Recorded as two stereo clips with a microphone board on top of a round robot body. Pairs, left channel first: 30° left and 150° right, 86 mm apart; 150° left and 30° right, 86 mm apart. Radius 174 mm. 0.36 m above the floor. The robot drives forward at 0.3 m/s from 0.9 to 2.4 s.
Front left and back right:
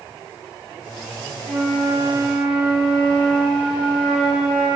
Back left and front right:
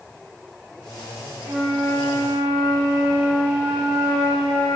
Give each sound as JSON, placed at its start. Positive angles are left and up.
{"t": 1.4, "sound": "a flute", "azimuth_deg": -115, "distance_m": 1.0}